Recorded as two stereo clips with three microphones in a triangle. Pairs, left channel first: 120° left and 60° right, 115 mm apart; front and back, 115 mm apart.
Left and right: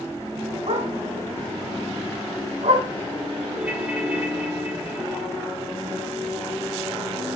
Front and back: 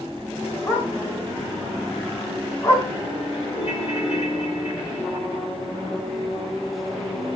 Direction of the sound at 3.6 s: 15° left.